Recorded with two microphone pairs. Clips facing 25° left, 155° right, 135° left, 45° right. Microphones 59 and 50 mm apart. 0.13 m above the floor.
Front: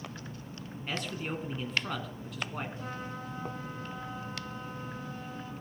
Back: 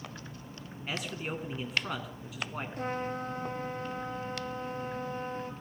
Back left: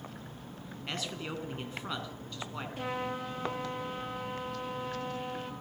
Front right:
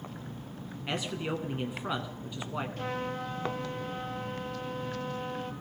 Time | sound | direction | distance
0.9 | a man speaking | 85° right | 1.4 m
2.8 | a trumpet | 145° right | 2.0 m